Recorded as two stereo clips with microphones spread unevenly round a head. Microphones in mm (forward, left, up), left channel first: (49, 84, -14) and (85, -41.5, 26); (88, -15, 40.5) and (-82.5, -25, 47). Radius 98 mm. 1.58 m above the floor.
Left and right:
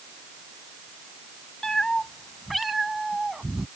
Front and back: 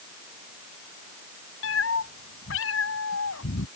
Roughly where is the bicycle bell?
I don't hear a bicycle bell.